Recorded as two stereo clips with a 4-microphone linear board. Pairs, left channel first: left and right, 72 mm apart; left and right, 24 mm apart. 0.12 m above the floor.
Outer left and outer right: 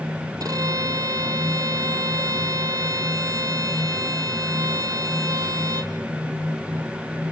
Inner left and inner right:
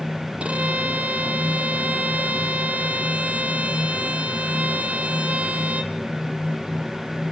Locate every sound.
0.4 s a violin: 60° right (ahead or behind), 1.5 m